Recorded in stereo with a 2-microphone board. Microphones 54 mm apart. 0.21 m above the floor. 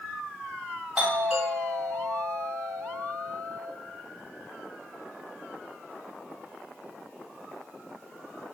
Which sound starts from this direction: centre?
A doorbell, at 0.9 s.